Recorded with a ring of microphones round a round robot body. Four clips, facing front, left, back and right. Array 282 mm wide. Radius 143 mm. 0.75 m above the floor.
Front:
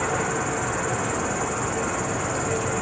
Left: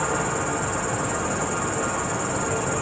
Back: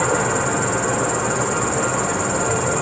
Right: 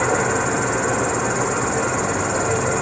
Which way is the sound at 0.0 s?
130° right.